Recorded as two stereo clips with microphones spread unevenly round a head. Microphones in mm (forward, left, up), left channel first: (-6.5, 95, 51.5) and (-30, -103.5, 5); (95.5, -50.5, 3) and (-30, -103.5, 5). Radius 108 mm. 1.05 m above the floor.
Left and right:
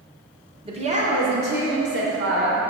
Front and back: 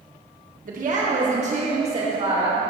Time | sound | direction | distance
0.7 | a woman speaking | 155° right | 1.4 m